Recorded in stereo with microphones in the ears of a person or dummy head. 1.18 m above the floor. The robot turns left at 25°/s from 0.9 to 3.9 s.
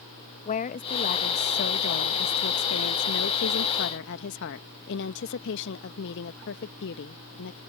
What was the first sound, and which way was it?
A woman speaking, 140° left.